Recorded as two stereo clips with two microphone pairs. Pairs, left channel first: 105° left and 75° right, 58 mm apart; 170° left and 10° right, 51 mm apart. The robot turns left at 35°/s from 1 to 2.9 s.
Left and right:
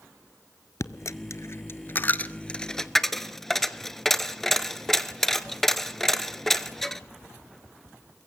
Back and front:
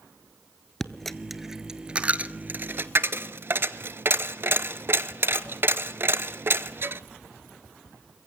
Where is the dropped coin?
90° left, 0.6 m; by 7.0 s 20° left, 0.6 m.